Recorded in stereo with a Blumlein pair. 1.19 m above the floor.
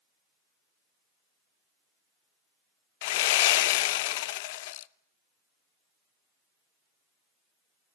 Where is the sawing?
50° left, 0.7 m.